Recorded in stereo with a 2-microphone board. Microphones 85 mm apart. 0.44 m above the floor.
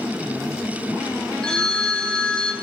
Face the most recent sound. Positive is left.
turn(degrees=10)  # may be behind; listen again after turning